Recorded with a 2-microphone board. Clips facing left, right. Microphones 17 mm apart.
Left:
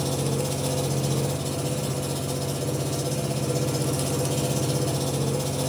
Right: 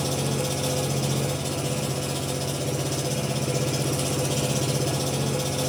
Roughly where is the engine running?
Right.